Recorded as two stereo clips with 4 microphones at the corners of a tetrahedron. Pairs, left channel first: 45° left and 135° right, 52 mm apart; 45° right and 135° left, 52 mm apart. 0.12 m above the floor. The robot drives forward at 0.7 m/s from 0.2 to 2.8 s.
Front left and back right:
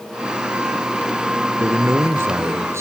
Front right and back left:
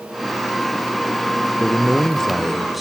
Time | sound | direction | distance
1.6 | a man speaking | 115° right | 1.8 m